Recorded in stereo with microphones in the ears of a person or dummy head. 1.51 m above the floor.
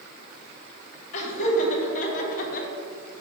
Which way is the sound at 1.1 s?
45° left (ahead or behind).